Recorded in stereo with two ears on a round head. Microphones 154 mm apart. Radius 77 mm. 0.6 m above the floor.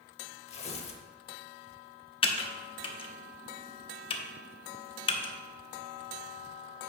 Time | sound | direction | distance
0.5 | tearing paper | 40° left (ahead or behind) | 0.7 m
2.2 | typing on a keyboard | 30° left (ahead or behind) | 0.7 m